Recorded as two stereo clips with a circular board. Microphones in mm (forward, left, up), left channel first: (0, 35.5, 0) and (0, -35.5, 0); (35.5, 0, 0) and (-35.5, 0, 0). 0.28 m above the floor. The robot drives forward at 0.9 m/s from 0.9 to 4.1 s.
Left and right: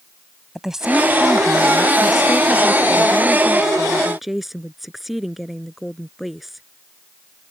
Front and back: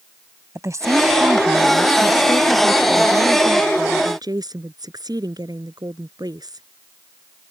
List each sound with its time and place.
0.6 s a woman speaking: 170° right; by 6.7 s 175° right